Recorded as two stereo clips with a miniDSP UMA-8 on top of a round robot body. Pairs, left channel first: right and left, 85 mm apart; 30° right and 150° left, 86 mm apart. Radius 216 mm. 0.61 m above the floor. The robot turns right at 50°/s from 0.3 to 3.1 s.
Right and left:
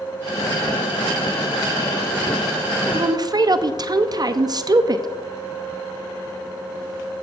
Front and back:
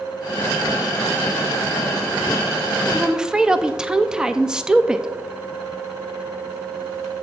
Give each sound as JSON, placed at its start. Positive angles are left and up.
{"t": 2.9, "sound": "a woman speaking", "azimuth_deg": 60, "distance_m": 0.8}